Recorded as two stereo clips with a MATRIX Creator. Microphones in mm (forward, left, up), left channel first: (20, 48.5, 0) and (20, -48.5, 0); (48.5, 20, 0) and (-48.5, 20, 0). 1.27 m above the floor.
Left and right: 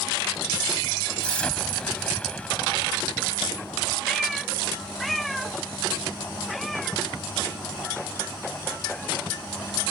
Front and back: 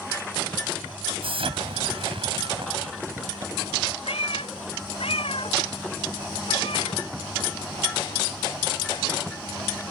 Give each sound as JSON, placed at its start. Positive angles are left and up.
{"t": 1.2, "sound": "an explosion", "azimuth_deg": 165}
{"t": 4.1, "sound": "a cat meowing", "azimuth_deg": 0}